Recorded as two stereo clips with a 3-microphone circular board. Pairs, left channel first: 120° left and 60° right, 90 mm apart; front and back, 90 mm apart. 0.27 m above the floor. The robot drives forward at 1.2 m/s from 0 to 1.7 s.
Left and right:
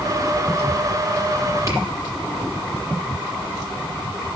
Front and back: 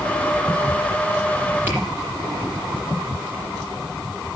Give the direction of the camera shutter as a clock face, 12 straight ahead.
4 o'clock.